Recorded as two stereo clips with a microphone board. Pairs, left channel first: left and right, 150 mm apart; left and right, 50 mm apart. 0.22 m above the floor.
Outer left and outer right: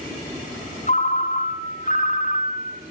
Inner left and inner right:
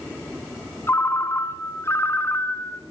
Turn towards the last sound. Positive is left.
turn(degrees=60)  # may be behind; listen again after turning